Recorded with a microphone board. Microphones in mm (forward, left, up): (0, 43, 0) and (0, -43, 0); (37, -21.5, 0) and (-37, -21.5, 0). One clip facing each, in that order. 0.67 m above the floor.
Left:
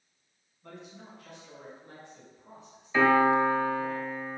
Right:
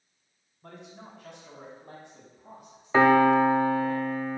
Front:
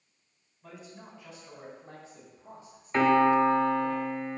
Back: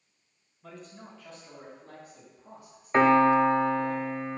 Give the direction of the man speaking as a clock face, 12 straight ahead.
3 o'clock.